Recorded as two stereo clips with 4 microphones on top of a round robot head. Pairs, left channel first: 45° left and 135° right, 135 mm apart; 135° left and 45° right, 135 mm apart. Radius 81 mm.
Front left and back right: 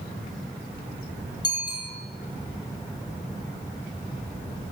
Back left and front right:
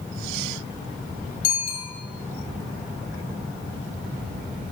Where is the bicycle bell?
105° left, 6.5 m.